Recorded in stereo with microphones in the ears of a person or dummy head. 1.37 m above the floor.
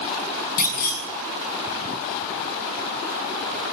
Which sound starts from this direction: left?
A clunk, at 0.6 s.